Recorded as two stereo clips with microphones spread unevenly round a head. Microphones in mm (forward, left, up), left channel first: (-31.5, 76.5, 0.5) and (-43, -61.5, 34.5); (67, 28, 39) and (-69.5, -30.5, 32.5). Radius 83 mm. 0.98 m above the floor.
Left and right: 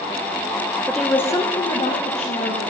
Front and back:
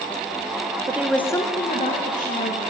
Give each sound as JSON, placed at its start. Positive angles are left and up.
{"t": 0.9, "sound": "a woman speaking", "azimuth_deg": 160, "distance_m": 0.6}